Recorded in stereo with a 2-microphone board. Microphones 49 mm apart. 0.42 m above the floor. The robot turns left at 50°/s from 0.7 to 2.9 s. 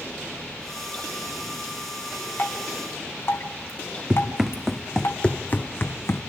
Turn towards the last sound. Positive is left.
turn(degrees=65)  # may be behind; listen again after turning